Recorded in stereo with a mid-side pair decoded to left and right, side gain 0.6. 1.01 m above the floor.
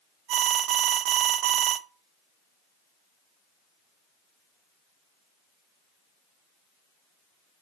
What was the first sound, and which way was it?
An alarm, 60° right.